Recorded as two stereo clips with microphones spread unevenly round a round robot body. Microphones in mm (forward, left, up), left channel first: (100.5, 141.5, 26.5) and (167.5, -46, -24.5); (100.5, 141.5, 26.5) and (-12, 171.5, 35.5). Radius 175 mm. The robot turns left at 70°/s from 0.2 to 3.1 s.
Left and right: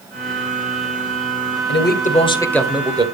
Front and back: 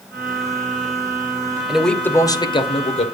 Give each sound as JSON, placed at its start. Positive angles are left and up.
{"t": 1.7, "sound": "a man speaking", "azimuth_deg": 80, "distance_m": 2.0}